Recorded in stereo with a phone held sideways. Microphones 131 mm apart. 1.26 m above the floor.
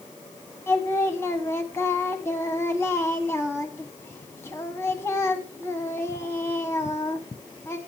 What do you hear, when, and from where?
0.7 s singing: 20° left (ahead or behind), 1.5 m